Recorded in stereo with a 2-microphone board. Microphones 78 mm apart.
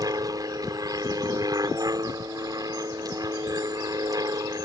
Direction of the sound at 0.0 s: 55° right (ahead or behind).